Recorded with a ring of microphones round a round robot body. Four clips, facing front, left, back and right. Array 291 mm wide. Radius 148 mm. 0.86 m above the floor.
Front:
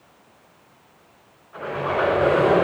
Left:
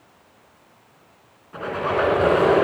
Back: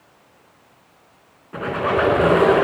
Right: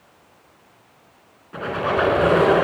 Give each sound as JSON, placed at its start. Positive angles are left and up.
{"t": 1.5, "sound": "a squeak", "azimuth_deg": -170, "distance_m": 3.0}